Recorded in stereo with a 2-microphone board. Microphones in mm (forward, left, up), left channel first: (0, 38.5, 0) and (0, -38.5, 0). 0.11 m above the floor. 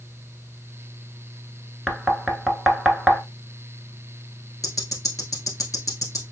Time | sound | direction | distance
1.9 | knocking | centre (ahead or behind) | 0.8 m
4.6 | ticking | 50° left (ahead or behind) | 1.2 m